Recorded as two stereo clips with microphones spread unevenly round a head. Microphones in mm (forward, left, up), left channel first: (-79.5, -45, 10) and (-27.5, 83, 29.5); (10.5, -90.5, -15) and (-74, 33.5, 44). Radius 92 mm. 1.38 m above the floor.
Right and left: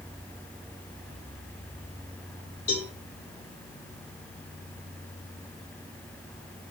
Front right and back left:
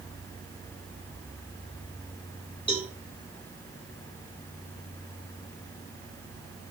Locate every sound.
2.7 s a cowbell: 115° right, 9 m